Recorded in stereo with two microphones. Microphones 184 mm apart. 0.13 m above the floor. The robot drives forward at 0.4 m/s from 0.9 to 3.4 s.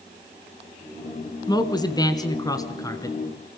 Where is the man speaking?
20° left (ahead or behind), 1.4 m.